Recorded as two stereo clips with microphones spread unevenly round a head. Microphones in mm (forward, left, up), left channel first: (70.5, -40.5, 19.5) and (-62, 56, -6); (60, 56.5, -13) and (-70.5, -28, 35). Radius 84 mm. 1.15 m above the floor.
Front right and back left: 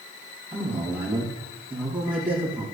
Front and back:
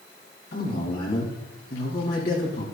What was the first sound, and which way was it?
A man speaking, 65° left.